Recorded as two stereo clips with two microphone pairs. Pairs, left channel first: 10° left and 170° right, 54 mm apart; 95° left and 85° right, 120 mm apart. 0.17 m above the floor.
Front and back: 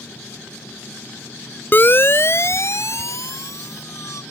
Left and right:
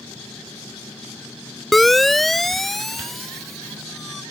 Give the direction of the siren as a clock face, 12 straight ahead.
12 o'clock.